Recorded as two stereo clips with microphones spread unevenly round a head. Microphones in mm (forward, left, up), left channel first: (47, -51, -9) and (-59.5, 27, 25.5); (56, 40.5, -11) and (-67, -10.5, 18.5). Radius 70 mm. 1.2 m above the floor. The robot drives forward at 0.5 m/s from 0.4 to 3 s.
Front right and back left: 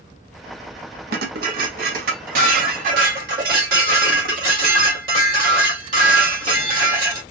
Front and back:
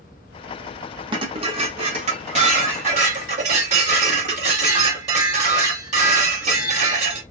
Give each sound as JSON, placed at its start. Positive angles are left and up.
{"t": 1.1, "sound": "dishes clattering", "azimuth_deg": 150, "distance_m": 0.8}